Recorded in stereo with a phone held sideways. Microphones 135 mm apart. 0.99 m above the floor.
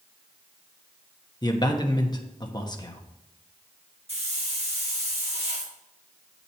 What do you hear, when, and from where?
1.4 s a man speaking: 30° left (ahead or behind), 1.0 m
4.1 s a hiss: 50° right (ahead or behind), 1.9 m